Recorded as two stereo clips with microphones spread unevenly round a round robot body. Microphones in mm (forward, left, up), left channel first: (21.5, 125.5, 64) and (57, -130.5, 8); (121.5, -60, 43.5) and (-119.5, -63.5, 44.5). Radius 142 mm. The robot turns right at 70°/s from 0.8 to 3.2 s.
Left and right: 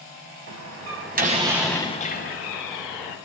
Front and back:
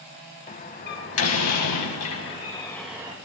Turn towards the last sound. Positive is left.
turn(degrees=115)